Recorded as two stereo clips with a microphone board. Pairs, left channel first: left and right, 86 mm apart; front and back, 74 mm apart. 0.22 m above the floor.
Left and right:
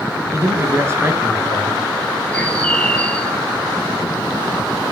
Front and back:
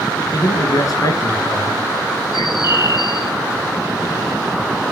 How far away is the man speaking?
About 2.5 m.